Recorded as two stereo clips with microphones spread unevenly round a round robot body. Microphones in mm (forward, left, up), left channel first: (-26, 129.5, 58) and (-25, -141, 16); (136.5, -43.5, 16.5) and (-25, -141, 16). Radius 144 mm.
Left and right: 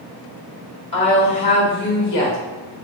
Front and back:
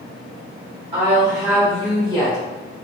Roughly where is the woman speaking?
Behind.